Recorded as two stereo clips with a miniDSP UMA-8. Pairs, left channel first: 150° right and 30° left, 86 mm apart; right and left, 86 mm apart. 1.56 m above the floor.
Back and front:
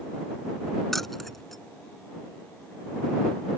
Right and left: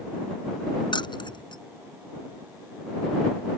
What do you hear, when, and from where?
0.9 s keys jangling: 60° right